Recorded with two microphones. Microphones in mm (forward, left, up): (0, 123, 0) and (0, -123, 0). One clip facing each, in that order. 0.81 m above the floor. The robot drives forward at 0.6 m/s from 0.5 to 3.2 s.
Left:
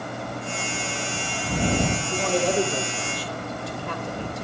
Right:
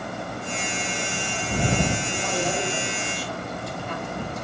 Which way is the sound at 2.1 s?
60° left (ahead or behind).